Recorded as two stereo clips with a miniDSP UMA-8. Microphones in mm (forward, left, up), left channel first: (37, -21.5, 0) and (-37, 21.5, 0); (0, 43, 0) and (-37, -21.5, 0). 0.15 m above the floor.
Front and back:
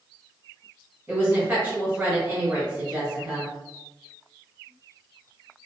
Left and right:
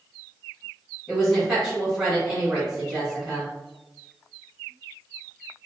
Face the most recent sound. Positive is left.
turn(degrees=165)